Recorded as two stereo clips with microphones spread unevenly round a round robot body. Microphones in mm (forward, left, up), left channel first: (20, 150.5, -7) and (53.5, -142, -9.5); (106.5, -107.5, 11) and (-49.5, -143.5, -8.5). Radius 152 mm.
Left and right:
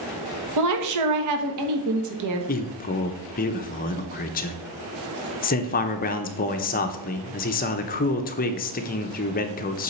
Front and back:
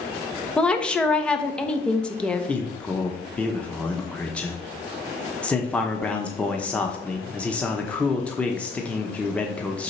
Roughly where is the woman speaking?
Right.